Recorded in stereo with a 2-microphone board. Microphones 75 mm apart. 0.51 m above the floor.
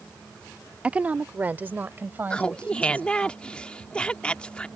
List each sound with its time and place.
0.8 s a woman speaking: 15° right (ahead or behind); by 3.3 s 25° right (ahead or behind)
2.3 s laughter: 15° left (ahead or behind)